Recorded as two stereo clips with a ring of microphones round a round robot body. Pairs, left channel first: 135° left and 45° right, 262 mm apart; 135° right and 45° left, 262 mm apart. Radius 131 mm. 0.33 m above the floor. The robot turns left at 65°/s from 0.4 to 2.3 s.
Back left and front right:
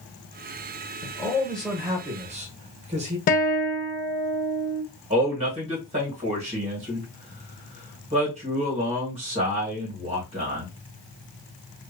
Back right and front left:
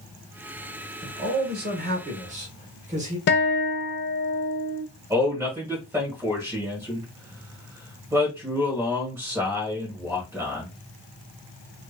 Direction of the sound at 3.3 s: 175° right.